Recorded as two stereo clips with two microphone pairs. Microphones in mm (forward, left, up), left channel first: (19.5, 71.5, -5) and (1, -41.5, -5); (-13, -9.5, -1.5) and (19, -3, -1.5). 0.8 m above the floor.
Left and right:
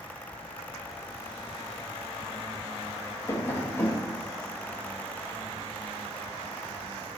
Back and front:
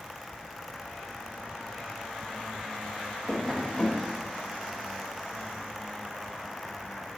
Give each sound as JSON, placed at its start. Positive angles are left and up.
{"t": 3.3, "sound": "tapping", "azimuth_deg": 135, "distance_m": 1.3}